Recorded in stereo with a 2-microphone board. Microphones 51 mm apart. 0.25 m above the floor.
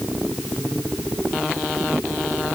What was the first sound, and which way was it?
Only background noise.